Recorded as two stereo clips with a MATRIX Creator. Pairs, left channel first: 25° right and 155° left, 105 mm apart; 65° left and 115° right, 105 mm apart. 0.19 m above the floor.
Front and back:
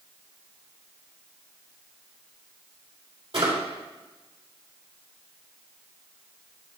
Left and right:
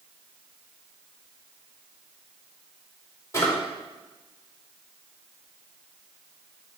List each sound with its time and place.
3.3 s a drawer: 130° left, 3 m